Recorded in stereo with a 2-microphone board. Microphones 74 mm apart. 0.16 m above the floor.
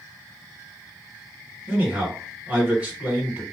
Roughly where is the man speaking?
Centre.